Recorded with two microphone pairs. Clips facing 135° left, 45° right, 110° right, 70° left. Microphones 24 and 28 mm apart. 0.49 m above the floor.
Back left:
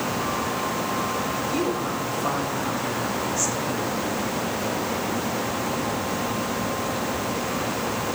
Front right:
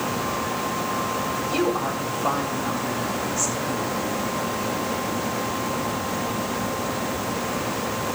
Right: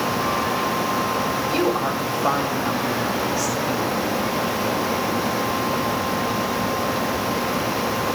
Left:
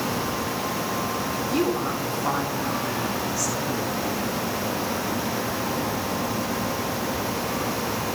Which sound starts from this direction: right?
A woman speaking, at 1.5 s.